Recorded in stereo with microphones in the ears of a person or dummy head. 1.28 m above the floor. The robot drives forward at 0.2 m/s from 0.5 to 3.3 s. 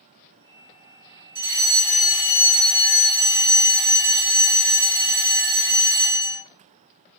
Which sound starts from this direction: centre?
A fire alarm, at 1.4 s.